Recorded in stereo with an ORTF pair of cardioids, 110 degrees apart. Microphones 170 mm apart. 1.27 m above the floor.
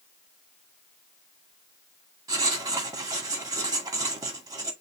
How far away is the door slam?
No door slam in this recording.